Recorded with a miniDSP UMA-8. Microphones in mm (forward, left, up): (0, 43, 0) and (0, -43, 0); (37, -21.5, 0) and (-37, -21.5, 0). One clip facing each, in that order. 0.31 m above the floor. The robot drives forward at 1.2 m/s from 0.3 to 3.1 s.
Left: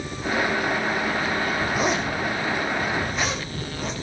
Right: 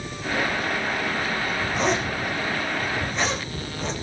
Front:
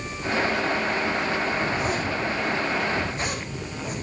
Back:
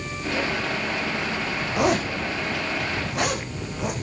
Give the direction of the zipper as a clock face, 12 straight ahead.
6 o'clock.